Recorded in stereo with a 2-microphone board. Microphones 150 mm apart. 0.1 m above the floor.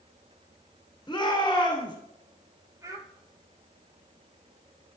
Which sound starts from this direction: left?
A shout, at 1.1 s.